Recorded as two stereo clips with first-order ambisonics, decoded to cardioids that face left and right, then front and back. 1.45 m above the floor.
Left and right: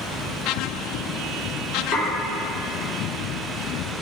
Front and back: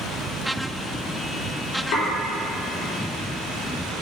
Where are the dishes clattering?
35° left, 3 m.